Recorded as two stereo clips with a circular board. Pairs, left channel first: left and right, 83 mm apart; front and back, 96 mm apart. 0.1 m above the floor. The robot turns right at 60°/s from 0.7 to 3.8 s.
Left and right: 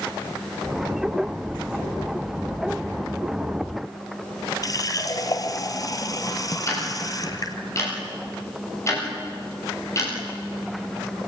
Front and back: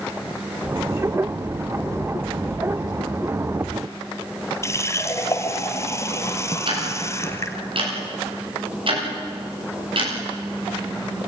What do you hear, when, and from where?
4.6 s a running tap: 55° left, 1.6 m
6.7 s ticking: 145° left, 10 m